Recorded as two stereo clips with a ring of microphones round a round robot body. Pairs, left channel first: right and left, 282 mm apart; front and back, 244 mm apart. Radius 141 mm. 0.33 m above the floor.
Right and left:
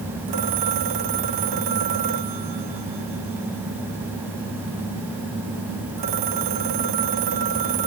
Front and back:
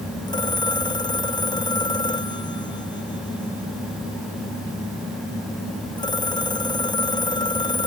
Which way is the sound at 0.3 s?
75° left.